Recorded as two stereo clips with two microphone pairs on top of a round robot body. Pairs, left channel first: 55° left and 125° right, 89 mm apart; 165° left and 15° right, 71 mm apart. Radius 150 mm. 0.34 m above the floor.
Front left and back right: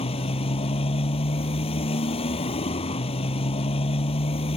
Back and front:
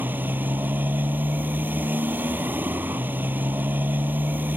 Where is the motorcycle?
50° left.